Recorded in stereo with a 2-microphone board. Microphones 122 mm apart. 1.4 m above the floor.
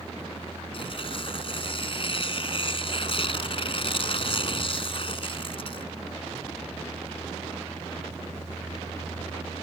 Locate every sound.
0.7 s tearing paper: 50° left (ahead or behind)